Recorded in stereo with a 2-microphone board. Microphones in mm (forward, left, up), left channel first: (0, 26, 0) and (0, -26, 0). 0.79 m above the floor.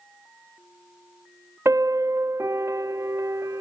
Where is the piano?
60° right (ahead or behind).